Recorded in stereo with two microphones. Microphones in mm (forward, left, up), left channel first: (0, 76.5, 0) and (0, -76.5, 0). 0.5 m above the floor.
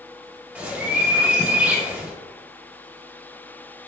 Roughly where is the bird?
Centre.